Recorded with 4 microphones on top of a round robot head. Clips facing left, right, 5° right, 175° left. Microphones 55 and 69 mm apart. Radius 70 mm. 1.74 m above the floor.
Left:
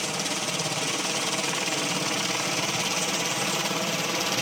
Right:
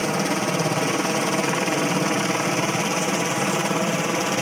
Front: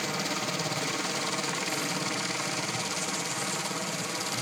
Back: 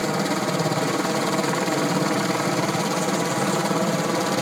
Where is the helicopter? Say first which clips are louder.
Right 8 dB, back 9 dB; 135° right; by 4.4 s 155° right.